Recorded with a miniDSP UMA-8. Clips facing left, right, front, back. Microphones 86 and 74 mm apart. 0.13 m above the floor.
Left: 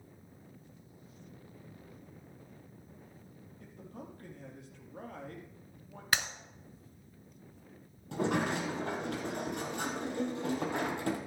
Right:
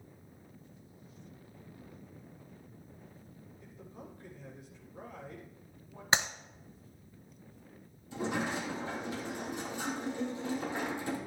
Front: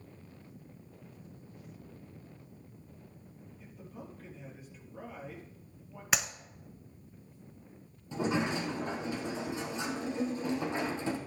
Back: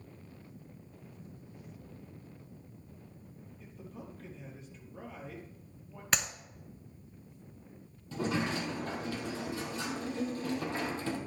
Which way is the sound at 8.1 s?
70° left.